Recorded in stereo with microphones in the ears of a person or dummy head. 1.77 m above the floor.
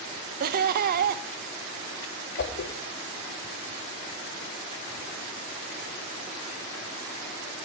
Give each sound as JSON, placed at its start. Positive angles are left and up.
{"t": 0.4, "sound": "laughter", "side_deg": -50, "distance_m": 1.0}
{"t": 2.4, "sound": "a whoosh", "side_deg": 40, "distance_m": 1.6}